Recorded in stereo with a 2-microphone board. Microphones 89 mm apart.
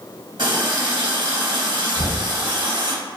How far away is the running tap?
About 0.8 m.